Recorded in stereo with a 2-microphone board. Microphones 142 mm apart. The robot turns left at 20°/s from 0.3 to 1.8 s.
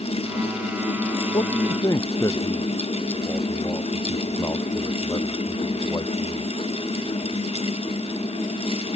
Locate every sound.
1.3 s a man speaking: 35° left (ahead or behind); by 6.5 s 25° left (ahead or behind)